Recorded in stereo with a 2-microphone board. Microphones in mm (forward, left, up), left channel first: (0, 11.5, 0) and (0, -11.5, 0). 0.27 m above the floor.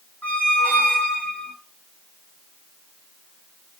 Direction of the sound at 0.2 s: 85° left.